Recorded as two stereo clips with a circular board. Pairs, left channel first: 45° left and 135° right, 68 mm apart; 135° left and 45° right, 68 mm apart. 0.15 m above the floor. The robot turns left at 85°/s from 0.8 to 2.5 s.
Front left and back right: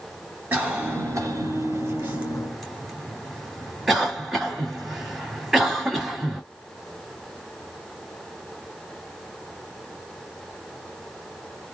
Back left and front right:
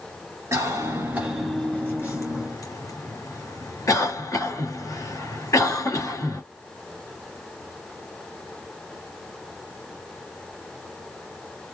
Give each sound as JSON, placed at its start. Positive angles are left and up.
{"t": 0.5, "sound": "a cough", "azimuth_deg": -70, "distance_m": 3.0}